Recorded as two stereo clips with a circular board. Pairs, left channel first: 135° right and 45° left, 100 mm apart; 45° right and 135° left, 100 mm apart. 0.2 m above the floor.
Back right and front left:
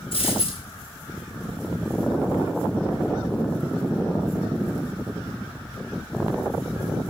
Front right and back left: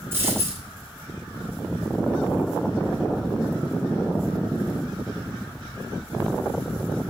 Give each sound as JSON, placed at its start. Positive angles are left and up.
{"t": 0.1, "sound": "a dropped coin", "azimuth_deg": -155, "distance_m": 6.5}